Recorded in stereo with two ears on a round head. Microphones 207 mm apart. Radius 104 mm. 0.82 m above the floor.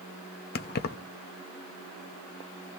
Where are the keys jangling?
40° left (ahead or behind), 0.7 m.